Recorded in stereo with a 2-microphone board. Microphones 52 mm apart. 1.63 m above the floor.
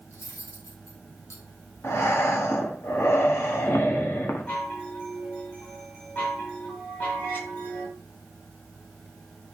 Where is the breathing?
55° left (ahead or behind), 1.3 m.